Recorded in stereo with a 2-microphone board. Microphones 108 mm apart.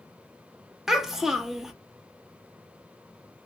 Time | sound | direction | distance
0.9 | a child speaking | 5° right (ahead or behind) | 0.6 m